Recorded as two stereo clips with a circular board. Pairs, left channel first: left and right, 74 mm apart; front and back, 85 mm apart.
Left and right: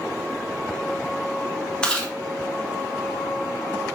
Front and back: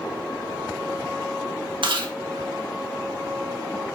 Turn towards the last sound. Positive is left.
turn(degrees=170)